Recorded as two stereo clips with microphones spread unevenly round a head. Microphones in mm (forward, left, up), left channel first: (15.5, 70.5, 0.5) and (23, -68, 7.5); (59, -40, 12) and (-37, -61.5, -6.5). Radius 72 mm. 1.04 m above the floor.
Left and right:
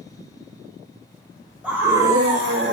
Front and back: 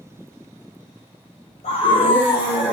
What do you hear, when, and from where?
1.6 s a scream: 5° right, 1.5 m; by 2.7 s 45° right, 2.0 m